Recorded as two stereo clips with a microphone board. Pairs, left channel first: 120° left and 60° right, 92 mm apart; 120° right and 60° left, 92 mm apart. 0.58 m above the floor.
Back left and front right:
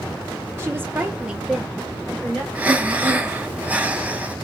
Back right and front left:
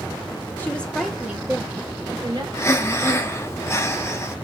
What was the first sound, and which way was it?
A woman speaking, 75° right.